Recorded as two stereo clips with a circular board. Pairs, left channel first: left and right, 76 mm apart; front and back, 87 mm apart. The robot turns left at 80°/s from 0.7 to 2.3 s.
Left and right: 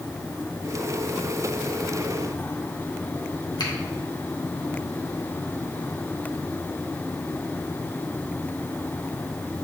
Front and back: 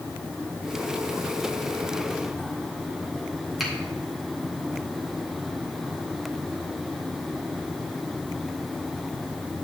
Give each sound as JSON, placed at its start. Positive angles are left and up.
{"t": 3.6, "sound": "a finger snap", "azimuth_deg": 90, "distance_m": 1.8}